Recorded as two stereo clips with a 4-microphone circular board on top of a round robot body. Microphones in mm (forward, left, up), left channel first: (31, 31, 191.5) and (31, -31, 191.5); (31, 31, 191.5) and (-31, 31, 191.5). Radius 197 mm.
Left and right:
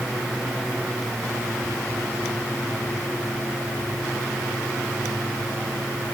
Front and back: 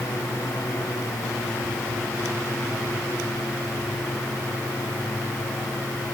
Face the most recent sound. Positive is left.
No sound to turn to.